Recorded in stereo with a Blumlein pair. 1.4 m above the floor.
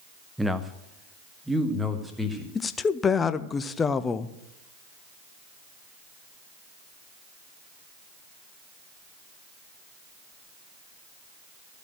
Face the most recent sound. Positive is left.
turn(degrees=20)